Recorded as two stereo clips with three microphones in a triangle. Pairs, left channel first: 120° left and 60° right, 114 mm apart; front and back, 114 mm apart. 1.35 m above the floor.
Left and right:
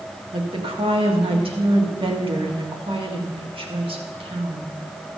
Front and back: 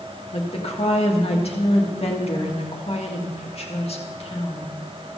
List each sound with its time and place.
0.3 s a woman speaking: 25° right, 1.7 m